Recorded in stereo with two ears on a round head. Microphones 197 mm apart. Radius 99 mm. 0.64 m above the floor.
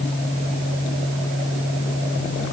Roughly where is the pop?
No pop in this recording.